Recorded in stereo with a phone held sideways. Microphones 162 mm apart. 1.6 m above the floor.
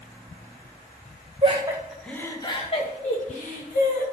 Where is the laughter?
35° right (ahead or behind), 1.5 m; by 4.0 s 60° left (ahead or behind), 3.5 m.